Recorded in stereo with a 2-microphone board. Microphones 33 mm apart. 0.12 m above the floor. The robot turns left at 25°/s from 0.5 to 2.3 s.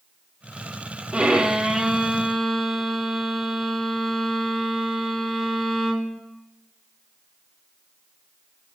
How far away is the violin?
About 0.5 m.